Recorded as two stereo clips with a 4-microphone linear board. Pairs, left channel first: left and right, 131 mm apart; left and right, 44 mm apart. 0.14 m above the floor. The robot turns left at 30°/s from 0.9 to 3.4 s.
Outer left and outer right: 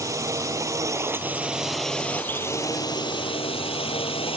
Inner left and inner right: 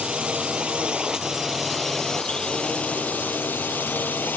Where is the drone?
155° right; by 4.4 s 130° left.